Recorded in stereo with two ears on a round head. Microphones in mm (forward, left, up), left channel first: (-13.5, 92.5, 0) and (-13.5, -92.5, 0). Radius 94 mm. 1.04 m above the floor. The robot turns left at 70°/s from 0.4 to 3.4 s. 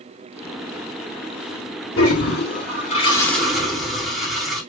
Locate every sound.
2.0 s a toilet flushing: 100° left, 3.5 m; by 4.6 s straight ahead, 3.5 m